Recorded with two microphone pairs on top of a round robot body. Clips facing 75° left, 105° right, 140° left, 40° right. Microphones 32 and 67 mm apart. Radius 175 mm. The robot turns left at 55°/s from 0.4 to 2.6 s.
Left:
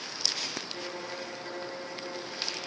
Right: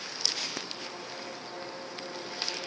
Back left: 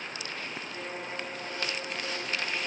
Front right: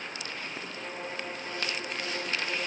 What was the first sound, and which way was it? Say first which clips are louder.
A violin: left 3 dB, back left 1 dB; 80° left.